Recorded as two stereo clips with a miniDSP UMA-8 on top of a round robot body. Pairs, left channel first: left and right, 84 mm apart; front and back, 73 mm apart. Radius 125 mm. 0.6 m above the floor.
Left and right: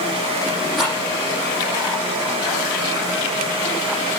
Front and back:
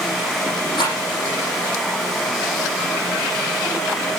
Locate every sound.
0.8 s a rattle: straight ahead, 8.5 m